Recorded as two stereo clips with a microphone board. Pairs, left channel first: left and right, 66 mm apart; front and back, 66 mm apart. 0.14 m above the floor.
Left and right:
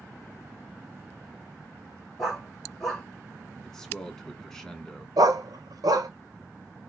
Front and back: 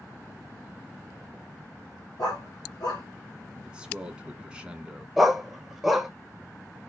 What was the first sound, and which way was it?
A dog barking, 5° left.